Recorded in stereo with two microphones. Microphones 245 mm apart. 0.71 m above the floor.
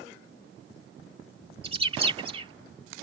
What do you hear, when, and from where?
1.6 s a bird: 20° right (ahead or behind)